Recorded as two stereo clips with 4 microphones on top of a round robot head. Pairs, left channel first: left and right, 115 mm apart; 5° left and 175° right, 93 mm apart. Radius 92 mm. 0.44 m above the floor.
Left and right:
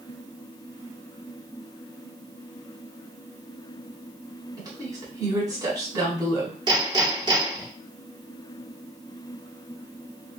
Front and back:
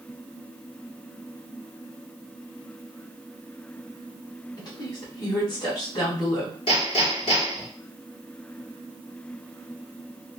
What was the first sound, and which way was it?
A woman speaking, 35° right.